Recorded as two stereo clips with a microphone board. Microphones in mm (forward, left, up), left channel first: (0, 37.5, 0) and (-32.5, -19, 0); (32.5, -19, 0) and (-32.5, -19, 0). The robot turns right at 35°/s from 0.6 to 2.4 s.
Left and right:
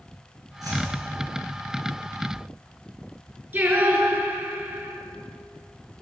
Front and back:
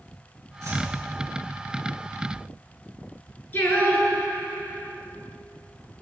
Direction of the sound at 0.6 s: 140° right.